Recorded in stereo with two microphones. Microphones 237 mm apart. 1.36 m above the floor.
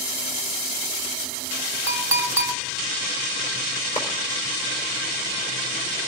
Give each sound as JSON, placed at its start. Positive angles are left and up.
{"t": 1.9, "sound": "a clink", "side_deg": -10, "distance_m": 2.5}
{"t": 4.0, "sound": "a clap", "side_deg": 30, "distance_m": 4.0}